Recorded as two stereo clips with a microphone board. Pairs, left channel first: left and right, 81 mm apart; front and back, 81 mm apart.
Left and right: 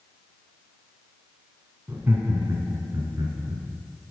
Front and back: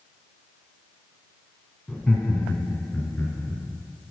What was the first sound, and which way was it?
Laughter, 60° right.